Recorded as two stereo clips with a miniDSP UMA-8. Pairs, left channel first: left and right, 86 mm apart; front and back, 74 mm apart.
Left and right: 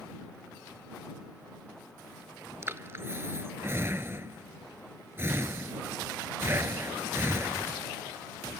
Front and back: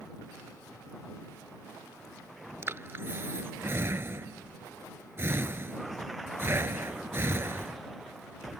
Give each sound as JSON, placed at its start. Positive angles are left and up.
{"t": 2.6, "sound": "breathing", "azimuth_deg": -140}